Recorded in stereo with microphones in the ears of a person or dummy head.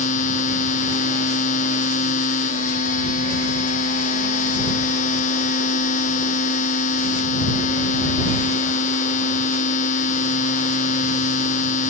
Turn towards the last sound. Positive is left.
turn(degrees=40)  # may be behind; listen again after turning